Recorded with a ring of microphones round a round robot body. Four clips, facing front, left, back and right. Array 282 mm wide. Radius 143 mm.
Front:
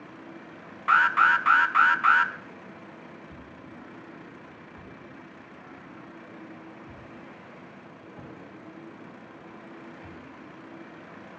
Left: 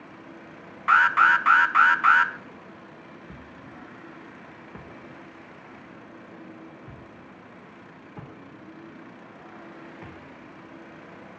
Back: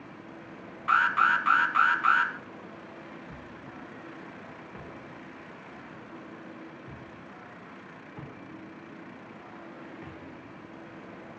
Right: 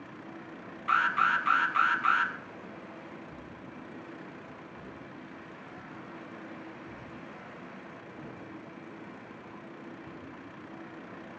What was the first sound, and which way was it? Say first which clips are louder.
An alarm: left 8 dB, front 3 dB; 65° left.